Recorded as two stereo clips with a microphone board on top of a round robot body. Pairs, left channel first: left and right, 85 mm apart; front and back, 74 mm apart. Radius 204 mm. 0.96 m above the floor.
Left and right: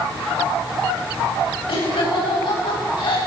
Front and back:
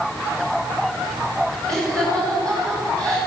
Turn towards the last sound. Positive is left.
turn(degrees=80)